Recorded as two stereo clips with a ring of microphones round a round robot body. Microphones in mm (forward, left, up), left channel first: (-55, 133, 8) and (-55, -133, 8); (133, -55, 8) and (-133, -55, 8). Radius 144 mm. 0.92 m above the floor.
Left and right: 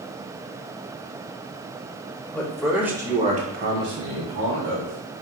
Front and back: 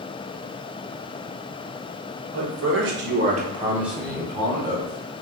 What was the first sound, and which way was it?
A man speaking, 170° left.